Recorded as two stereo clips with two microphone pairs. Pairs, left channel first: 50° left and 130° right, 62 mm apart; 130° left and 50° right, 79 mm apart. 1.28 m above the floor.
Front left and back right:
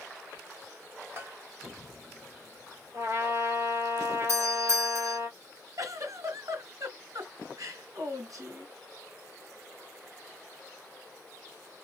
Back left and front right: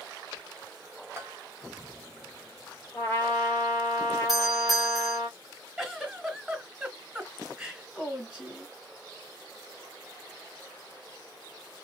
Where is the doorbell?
140° right, 1.5 m.